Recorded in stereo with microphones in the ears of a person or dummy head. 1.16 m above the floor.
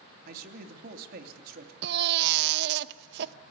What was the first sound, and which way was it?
A man speaking, 55° right (ahead or behind).